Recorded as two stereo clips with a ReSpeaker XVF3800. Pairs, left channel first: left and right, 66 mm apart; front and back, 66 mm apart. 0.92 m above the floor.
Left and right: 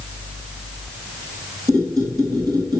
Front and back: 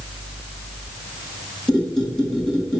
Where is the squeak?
80° right, 2.5 m.